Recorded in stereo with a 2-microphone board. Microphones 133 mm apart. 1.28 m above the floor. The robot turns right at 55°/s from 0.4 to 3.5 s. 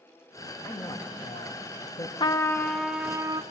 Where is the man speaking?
20° left, 1.3 m; by 2.1 s 100° left, 1.3 m.